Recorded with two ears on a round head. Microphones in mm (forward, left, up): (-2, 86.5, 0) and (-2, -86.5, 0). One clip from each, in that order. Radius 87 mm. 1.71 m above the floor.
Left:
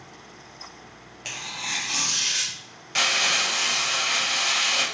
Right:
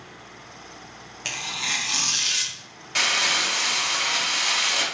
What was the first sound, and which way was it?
Tearing paper, 20° right (ahead or behind).